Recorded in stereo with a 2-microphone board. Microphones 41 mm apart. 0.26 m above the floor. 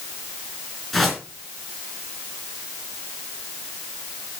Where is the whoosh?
Centre (ahead or behind), 3.5 m.